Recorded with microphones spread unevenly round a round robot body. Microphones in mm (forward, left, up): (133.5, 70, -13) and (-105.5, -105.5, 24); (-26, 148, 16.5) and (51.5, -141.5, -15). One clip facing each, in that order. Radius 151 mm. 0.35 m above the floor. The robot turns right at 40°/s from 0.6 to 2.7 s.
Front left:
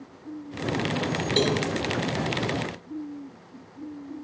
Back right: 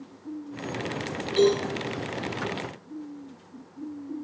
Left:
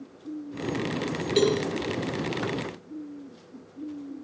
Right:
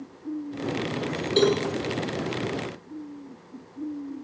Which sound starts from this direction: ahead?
A cowbell, at 1.4 s.